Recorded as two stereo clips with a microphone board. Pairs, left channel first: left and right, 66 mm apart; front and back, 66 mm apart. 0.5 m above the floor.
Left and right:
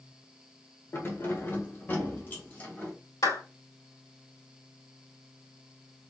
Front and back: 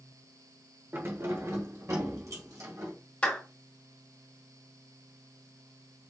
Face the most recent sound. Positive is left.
turn(degrees=75)